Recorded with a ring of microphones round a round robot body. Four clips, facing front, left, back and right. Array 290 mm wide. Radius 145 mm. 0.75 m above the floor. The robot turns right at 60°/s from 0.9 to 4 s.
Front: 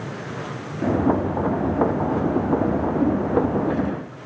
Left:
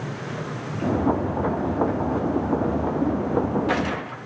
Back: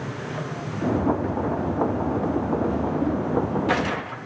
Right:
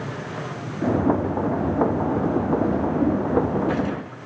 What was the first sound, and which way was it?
Only background noise.